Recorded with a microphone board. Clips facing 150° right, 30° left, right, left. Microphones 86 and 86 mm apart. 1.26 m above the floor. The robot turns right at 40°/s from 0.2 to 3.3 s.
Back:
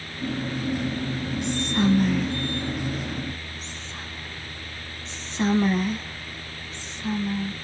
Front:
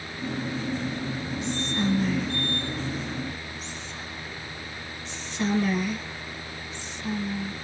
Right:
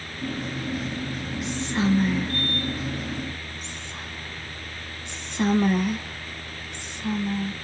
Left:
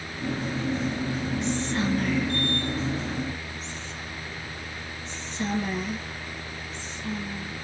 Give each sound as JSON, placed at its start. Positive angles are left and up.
{"t": 1.4, "sound": "whispering", "azimuth_deg": -175, "distance_m": 0.9}